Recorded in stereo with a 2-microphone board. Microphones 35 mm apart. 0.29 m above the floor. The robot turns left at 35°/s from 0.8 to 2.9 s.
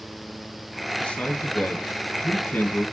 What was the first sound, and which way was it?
A man speaking, 135° left.